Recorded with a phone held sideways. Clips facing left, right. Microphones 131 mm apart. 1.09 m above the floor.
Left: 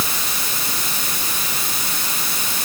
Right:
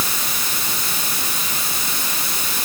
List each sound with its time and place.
Only background noise.